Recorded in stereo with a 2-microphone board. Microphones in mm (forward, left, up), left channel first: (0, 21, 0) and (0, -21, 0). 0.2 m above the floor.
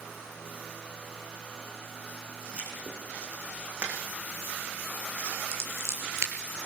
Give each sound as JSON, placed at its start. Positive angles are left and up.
{"t": 2.5, "sound": "writing", "side_deg": -30, "distance_m": 6.5}
{"t": 5.5, "sound": "scissors", "side_deg": -70, "distance_m": 5.0}